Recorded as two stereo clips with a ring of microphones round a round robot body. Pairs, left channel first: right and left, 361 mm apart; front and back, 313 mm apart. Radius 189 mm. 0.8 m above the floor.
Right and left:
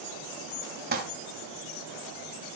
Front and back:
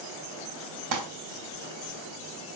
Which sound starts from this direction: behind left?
Crumpling, at 0.9 s.